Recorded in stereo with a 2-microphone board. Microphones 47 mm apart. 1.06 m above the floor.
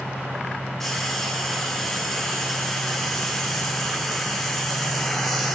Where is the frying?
5° left (ahead or behind), 1.5 m.